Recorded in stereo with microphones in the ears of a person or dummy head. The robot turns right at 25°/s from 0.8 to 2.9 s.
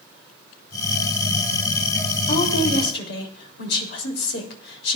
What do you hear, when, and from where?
2.3 s a woman speaking: 50° left (ahead or behind), 3 m; by 5.0 s 65° left (ahead or behind), 3 m